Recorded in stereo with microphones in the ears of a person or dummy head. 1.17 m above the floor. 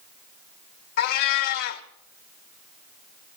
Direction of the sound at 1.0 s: 55° left (ahead or behind).